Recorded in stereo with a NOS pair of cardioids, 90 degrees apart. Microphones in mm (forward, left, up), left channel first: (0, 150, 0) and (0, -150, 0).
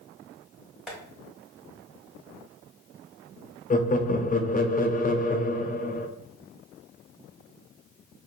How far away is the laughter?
About 0.7 m.